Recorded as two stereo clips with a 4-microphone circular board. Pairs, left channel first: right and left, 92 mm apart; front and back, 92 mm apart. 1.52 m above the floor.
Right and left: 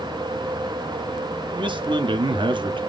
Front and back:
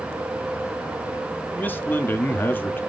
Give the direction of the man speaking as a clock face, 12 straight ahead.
10 o'clock.